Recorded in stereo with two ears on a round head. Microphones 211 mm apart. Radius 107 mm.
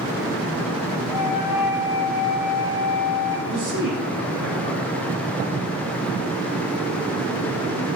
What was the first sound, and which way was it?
A flute, 15° right (ahead or behind).